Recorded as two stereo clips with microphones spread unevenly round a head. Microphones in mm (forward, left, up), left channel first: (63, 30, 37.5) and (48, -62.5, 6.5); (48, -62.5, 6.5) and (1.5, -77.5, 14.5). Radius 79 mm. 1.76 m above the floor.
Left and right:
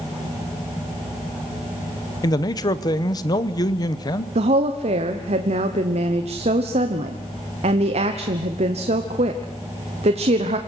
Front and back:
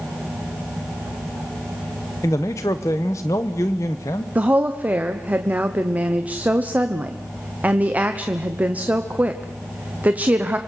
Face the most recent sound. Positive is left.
turn(degrees=-105)